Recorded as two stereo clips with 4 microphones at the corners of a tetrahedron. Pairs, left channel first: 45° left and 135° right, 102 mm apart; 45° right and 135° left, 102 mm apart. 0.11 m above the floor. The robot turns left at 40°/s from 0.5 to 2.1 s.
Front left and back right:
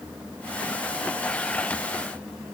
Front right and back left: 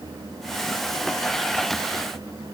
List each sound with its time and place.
Only background noise.